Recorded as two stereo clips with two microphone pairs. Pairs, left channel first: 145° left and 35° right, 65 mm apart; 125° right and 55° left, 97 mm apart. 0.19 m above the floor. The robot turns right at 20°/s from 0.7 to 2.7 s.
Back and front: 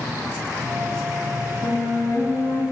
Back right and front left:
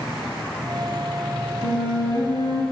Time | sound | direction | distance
1.6 | a flute | 175° left | 3.5 m